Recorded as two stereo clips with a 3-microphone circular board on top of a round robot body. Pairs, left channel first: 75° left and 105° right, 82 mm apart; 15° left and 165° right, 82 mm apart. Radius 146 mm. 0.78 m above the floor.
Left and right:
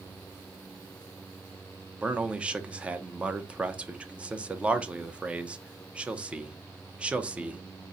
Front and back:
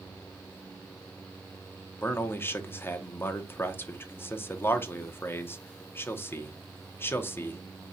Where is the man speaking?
35° right, 0.7 m.